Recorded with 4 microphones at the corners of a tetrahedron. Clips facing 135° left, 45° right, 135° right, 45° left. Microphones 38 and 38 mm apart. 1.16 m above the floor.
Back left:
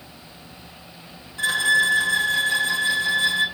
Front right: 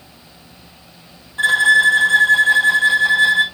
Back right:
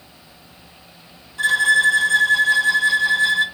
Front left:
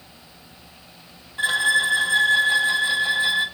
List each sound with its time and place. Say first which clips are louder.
1.4 s a violin: front right 7 dB, back right 4 dB; 10° right, 1.4 m